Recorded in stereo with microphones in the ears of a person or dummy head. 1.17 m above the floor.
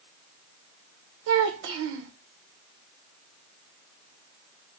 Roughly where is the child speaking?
Right.